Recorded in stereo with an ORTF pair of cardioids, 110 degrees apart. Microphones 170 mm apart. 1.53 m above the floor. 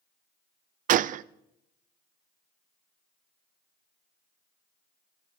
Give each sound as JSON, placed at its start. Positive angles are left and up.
{"t": 0.9, "sound": "a gunshot", "azimuth_deg": -55, "distance_m": 0.5}